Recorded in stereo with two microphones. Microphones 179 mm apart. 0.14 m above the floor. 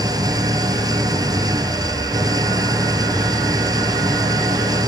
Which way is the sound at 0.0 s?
20° right (ahead or behind).